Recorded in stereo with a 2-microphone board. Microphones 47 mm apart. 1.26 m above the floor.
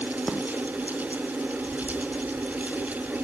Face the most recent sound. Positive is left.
No sound to turn to.